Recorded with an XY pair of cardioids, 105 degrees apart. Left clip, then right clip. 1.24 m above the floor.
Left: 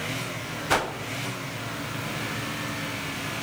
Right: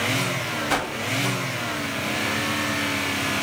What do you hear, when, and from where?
0.7 s a whoosh: 10° left, 0.6 m